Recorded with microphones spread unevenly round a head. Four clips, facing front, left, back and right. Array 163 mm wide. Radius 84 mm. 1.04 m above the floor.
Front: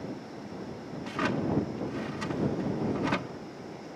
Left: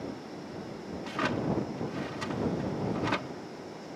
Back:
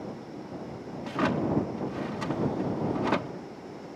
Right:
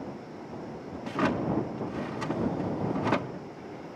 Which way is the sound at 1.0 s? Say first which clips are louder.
Right 3 dB, back 3 dB; 145° right.